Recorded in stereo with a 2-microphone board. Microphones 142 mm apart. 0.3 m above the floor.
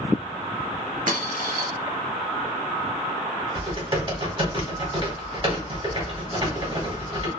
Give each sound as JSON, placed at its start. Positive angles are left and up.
{"t": 1.1, "sound": "a dropped coin", "side_deg": -70, "distance_m": 0.7}
{"t": 3.5, "sound": "typing on a keyboard", "side_deg": -40, "distance_m": 1.4}